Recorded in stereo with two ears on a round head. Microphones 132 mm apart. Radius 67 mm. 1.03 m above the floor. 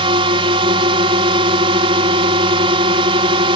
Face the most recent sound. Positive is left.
turn(degrees=-40)  # may be behind; listen again after turning